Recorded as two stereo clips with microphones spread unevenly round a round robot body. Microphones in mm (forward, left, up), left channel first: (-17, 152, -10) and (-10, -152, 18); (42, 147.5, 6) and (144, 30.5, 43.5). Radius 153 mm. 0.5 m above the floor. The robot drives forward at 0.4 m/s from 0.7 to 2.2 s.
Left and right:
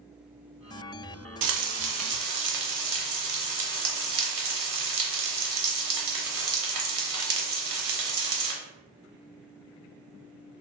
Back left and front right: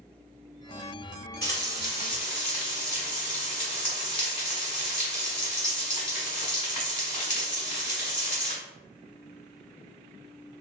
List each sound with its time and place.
1.4 s frying: 115° right, 0.6 m; by 8.6 s 135° right, 0.7 m